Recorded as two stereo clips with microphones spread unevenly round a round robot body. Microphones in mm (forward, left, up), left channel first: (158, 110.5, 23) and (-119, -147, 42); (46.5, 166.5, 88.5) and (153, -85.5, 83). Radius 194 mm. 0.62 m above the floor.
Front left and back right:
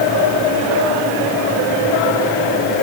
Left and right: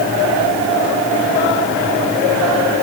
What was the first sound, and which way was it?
Only background noise.